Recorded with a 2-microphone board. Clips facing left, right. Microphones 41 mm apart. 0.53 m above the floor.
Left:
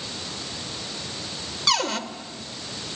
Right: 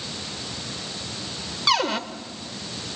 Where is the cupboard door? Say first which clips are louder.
Right 2 dB; 15° right (ahead or behind), 1.2 m.